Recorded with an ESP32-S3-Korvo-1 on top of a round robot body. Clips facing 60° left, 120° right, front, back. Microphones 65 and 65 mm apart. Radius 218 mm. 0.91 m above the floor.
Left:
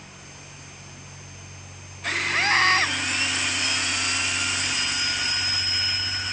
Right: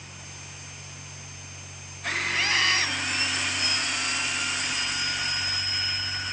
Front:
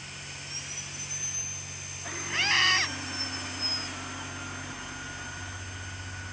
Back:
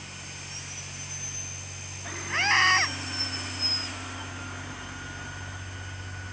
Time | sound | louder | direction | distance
2.3 | a scream | left 6 dB, back 4 dB | 115° left | ?